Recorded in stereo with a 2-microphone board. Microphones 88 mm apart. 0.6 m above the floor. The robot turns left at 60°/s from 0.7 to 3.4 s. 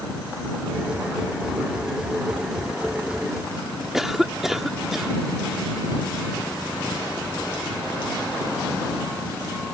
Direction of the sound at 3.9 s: 5° right (ahead or behind).